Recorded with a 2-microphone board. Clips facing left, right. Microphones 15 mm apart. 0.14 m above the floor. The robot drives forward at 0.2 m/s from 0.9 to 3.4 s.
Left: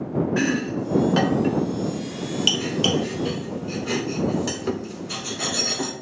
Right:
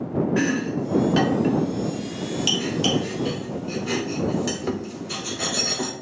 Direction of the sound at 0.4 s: 20° left (ahead or behind).